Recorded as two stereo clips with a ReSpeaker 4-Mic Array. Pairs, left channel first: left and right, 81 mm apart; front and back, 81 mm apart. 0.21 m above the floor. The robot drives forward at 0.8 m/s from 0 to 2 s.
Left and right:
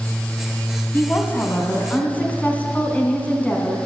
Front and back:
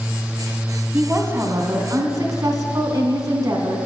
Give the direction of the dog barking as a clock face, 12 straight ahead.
No dog barking in this recording.